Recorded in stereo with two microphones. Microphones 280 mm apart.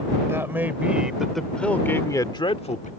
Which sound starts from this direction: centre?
A man speaking, at 0.3 s.